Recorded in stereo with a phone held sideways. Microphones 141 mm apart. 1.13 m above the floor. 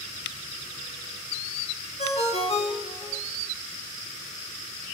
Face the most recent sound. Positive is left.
turn(degrees=50)  # may be behind; listen again after turning